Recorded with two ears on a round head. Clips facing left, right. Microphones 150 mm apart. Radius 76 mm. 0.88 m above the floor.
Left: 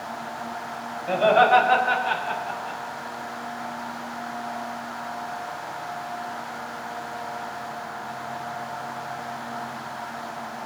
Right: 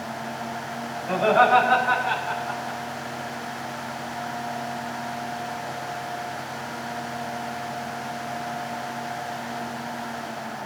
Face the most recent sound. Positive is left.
turn(degrees=35)  # may be behind; listen again after turning